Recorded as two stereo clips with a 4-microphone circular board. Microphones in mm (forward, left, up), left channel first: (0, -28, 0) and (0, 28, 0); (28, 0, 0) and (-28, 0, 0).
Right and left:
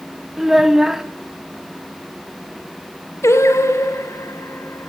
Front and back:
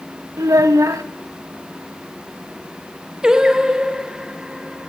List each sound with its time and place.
0.4 s a child speaking: 170° left, 2 m
3.2 s singing: 105° right, 2 m